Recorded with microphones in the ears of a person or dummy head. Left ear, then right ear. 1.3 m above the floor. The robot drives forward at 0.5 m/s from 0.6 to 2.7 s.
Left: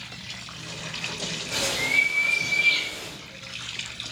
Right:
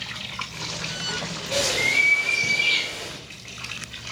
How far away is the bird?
About 0.7 m.